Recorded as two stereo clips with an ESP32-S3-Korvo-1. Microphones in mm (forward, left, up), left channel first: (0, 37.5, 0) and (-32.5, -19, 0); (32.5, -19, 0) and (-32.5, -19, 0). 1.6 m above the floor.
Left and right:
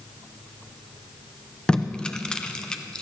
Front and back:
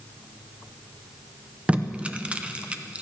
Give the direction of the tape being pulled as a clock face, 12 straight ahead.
8 o'clock.